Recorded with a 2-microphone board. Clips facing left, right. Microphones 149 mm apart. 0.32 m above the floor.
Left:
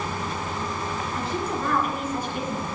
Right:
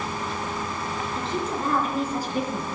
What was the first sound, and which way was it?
A woman speaking, 20° right (ahead or behind).